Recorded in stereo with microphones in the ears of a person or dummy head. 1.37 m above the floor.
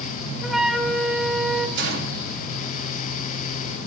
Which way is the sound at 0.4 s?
5° right (ahead or behind).